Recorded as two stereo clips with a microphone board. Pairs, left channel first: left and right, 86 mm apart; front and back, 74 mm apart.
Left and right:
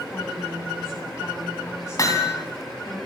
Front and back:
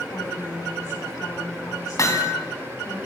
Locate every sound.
0.1 s a woman speaking: 35° left, 6.5 m
2.0 s hammering: 45° left, 2.5 m